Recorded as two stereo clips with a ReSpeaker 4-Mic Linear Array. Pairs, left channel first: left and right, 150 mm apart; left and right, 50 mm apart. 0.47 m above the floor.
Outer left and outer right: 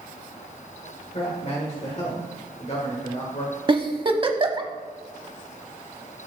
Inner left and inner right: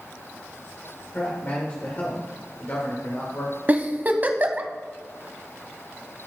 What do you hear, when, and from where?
1.1 s a man speaking: 45° left (ahead or behind), 1.3 m
3.7 s a giggle: 35° right (ahead or behind), 0.7 m